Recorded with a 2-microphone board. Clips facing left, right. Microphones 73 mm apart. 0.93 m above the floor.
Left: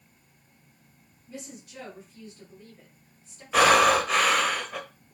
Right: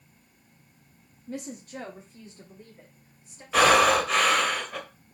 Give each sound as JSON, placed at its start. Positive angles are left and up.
{"t": 1.3, "sound": "a woman speaking", "side_deg": -55, "distance_m": 1.4}
{"t": 3.5, "sound": "breathing", "side_deg": 5, "distance_m": 1.4}